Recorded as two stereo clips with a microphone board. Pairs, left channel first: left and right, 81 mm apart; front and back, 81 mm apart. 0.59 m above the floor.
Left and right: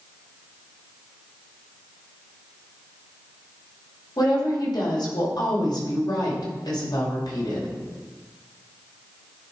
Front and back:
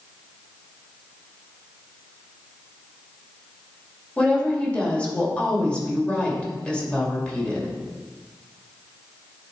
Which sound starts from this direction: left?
A woman speaking, at 4.2 s.